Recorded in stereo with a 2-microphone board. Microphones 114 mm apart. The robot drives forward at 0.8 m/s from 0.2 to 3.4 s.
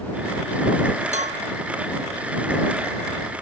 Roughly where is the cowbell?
Right.